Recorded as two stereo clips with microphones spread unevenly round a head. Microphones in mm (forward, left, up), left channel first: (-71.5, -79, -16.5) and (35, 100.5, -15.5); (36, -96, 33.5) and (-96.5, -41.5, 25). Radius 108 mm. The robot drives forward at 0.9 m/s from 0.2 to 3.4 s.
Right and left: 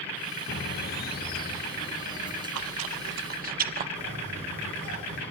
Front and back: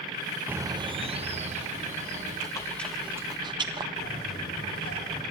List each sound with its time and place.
0.5 s a bird: 130° right, 0.6 m; by 2.5 s 170° right, 2 m
2.5 s chewing: 50° left, 1.1 m; by 3.9 s 100° left, 0.9 m
4.0 s a bird: 15° left, 7.5 m